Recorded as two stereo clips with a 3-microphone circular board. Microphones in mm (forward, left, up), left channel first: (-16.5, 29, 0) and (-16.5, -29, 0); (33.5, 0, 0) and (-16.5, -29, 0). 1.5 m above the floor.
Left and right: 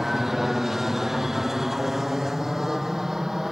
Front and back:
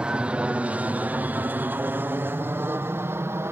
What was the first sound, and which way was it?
An aircraft, 165° right.